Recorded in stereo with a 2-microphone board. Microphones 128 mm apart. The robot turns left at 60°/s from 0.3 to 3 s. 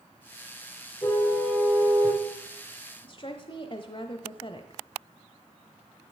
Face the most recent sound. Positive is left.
turn(degrees=40)  # may be behind; listen again after turning